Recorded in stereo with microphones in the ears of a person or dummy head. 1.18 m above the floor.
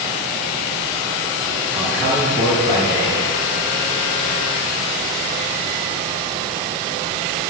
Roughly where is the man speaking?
Centre.